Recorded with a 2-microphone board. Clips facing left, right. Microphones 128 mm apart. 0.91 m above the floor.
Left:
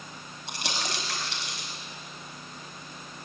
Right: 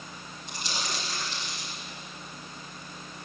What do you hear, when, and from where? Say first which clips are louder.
0.5 s crumpling: left 2 dB; 85° left, 5 m